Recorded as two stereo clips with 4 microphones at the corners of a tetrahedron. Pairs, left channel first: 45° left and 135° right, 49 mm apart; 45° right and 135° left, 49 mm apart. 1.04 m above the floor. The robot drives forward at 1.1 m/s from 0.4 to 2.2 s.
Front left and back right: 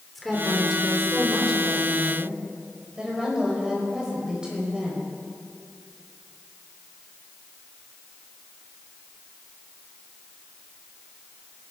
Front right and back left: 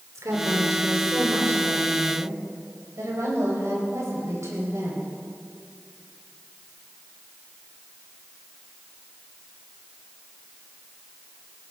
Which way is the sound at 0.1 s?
135° left.